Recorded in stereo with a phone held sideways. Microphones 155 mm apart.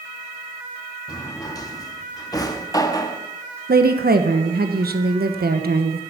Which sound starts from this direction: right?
A woman speaking, at 3.7 s.